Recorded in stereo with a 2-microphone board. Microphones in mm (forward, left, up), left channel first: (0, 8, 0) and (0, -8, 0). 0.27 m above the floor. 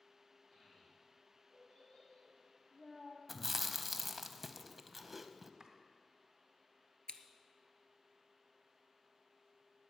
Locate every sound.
0.5 s a child speaking: 45° left (ahead or behind), 6.5 m; by 3.2 s 60° left (ahead or behind), 5 m
3.3 s chewing: centre (ahead or behind), 0.7 m
5.6 s chopping: 40° right (ahead or behind), 1.5 m
7.1 s scissors: 75° left (ahead or behind), 0.9 m